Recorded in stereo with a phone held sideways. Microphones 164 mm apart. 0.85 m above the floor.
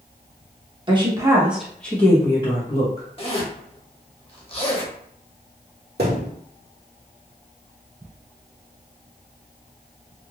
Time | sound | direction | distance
0.9 | a woman speaking | 30° right (ahead or behind) | 1.0 m
3.2 | a zipper | 35° left (ahead or behind) | 0.9 m
6.0 | a thud | 80° right | 1.2 m